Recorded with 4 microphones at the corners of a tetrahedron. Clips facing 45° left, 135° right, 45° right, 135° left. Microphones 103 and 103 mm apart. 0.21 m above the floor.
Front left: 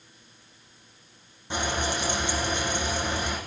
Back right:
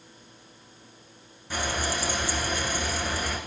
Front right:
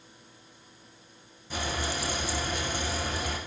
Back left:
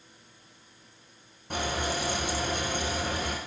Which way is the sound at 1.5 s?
110° left.